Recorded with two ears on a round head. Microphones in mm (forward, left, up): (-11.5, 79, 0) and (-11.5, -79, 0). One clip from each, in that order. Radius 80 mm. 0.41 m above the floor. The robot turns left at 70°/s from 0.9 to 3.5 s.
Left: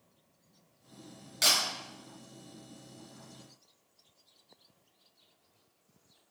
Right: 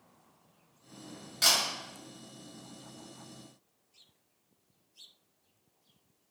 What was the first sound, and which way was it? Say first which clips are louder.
A camera shutter: even; 15° left (ahead or behind).